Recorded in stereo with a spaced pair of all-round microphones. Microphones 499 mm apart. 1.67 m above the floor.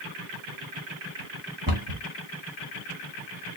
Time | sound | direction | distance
1.7 | a cupboard door | 45° right (ahead or behind) | 1.4 m